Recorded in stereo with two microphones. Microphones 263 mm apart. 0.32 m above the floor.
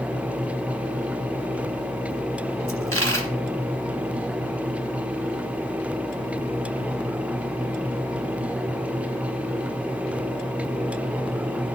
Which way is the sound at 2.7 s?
55° right (ahead or behind).